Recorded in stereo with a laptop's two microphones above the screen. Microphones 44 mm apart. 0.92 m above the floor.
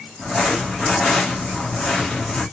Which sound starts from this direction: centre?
Crumpling, at 0.2 s.